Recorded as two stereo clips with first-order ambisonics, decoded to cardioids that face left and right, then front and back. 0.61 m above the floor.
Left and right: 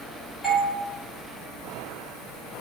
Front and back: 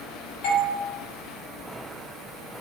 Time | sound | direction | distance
0.4 | a doorbell | 5° left | 1.6 m